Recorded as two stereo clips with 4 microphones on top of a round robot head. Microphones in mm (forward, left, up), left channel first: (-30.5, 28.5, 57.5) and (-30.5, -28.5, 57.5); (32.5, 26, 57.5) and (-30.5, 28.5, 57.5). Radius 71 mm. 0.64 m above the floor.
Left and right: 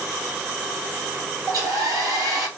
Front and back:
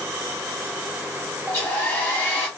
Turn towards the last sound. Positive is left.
turn(degrees=-70)